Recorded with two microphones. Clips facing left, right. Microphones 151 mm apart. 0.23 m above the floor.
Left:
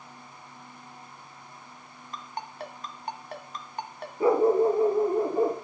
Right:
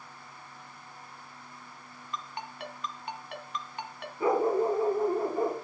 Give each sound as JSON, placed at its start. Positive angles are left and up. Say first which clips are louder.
{"t": 2.1, "sound": "a ringtone", "louder": "left 2 dB", "side_deg": 40, "distance_m": 1.3}
{"t": 4.2, "sound": "a dog barking", "louder": "left 5 dB", "side_deg": 30, "distance_m": 1.7}